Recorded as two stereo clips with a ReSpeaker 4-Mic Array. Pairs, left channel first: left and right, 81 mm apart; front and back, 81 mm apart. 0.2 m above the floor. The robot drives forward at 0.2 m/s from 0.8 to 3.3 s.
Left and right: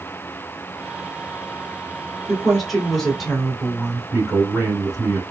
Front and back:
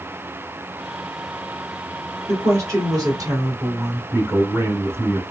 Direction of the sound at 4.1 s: 170° right.